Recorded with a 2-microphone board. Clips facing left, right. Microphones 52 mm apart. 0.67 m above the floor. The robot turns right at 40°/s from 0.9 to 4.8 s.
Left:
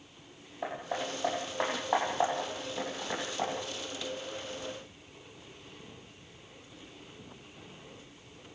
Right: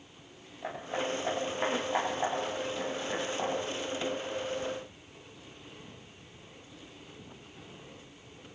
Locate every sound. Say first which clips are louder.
0.6 s hammering: right 1 dB; 75° left (ahead or behind), 9 m; by 3.5 s centre (ahead or behind), 9 m